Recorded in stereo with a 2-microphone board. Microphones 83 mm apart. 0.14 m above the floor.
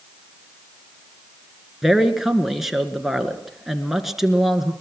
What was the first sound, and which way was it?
A man speaking, 5° right (ahead or behind).